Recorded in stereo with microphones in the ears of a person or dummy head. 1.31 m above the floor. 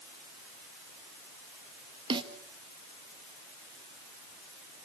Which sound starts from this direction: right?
A snare drum, at 2.1 s.